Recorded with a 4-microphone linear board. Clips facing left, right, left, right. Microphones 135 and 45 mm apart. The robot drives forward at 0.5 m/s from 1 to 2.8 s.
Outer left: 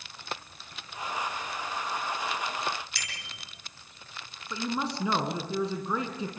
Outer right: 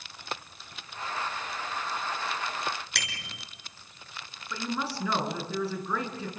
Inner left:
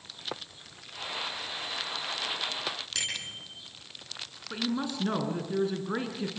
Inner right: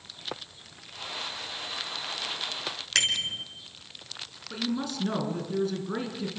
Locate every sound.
3.0 s a bicycle bell: 80° right, 3.5 m
4.5 s a woman speaking: 20° left (ahead or behind), 4.5 m